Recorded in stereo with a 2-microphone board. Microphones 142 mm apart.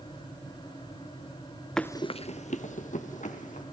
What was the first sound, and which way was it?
Running footsteps, 5° left (ahead or behind).